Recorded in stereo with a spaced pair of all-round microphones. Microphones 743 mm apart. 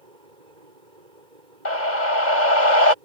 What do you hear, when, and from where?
0.0 s a fan: 80° right
1.6 s a scream: 75° left (ahead or behind)